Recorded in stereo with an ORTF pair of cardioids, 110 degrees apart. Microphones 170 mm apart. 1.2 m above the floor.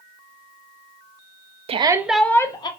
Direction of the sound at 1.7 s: 35° right.